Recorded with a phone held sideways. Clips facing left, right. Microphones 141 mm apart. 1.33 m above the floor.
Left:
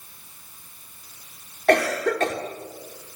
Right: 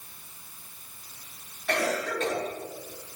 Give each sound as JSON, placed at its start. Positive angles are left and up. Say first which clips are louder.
{"t": 1.7, "sound": "a cough", "louder": "left 8 dB", "side_deg": 80, "distance_m": 3.5}